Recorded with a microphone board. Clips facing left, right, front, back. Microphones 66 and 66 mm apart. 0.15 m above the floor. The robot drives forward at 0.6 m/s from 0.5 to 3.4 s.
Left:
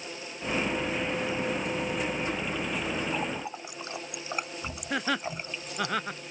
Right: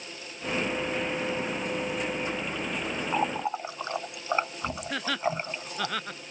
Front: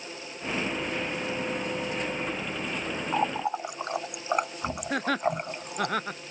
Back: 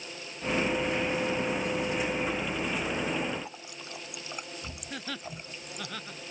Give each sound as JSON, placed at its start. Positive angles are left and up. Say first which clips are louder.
{"t": 3.1, "sound": "a running tap", "louder": "right 5 dB, front 6 dB", "azimuth_deg": -30}
{"t": 4.9, "sound": "laughter", "louder": "left 1 dB, front 13 dB", "azimuth_deg": 15}